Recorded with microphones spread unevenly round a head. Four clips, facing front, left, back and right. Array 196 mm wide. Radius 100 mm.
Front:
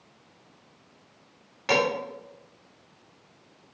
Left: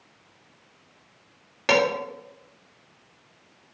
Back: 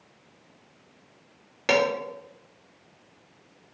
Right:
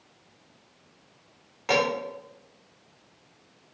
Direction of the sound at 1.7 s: 140° left.